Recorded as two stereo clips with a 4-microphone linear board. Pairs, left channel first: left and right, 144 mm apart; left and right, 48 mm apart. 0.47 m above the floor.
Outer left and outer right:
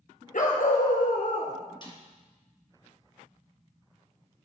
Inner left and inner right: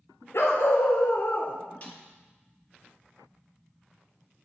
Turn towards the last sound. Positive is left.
turn(degrees=35)  # may be behind; listen again after turning